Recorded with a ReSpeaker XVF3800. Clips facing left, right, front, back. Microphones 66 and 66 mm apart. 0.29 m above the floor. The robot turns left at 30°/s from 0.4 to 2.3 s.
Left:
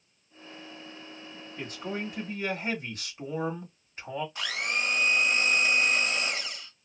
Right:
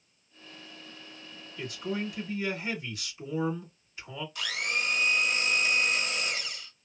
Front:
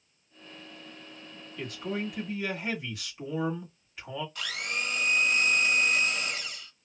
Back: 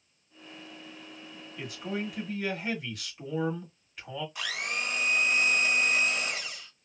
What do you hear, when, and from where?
1.6 s a man speaking: 110° left, 1.4 m; by 4.2 s 90° left, 1.4 m
4.3 s a blender: 115° left, 1.7 m